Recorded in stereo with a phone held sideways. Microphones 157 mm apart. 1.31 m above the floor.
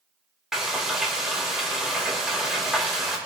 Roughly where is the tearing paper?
I don't hear tearing paper.